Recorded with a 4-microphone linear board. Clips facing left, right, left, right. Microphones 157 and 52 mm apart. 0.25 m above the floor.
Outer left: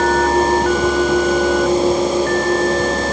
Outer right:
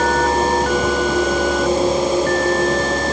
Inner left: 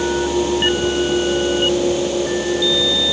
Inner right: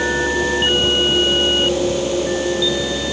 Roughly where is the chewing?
No chewing in this recording.